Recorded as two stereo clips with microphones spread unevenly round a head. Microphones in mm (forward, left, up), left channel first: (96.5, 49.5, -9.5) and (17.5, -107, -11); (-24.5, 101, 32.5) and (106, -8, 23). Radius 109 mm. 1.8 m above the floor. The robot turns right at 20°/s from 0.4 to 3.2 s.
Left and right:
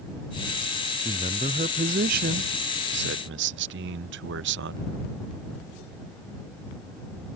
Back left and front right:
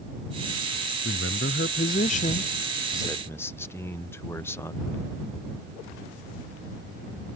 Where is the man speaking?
175° left; by 4.9 s 140° right.